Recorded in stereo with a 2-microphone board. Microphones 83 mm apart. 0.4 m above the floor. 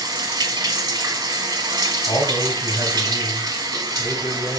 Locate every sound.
0.0 s running water: 50° right (ahead or behind), 0.7 m
2.1 s a man speaking: 45° left (ahead or behind), 2.5 m